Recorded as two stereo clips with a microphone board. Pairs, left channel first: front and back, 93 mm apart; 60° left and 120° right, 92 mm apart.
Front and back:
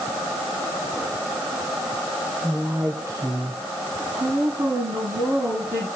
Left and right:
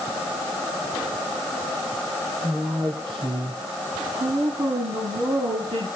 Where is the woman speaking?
110° right, 1.3 m; by 5.9 s 140° right, 6 m.